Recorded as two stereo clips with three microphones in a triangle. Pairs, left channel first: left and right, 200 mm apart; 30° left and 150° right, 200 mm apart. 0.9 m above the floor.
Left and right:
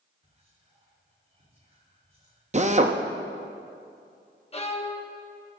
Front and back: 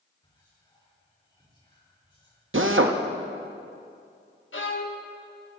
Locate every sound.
0.2 s whispering: 35° right, 3 m
2.5 s a drill: 145° right, 0.6 m
4.5 s a violin: 35° left, 0.9 m